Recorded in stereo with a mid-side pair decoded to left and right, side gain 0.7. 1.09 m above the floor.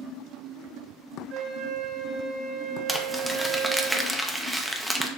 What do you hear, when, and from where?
1.3 s a flute: 65° right, 2 m
2.9 s crumpling: straight ahead, 0.8 m